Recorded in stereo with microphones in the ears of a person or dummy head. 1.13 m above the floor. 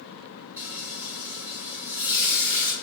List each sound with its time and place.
0.6 s frying: 10° right (ahead or behind), 1.5 m